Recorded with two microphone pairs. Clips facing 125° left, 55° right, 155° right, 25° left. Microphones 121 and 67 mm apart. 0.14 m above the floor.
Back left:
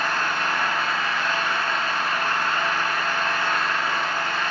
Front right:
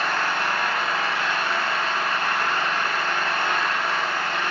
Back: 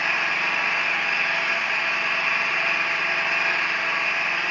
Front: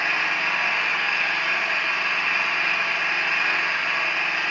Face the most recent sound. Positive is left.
turn(degrees=-70)